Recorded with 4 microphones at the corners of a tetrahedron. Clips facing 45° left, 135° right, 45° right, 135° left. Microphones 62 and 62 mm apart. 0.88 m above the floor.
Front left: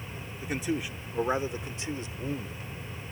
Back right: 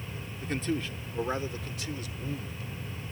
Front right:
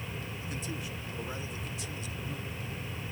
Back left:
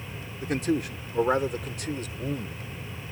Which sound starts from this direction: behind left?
A man speaking, at 0.4 s.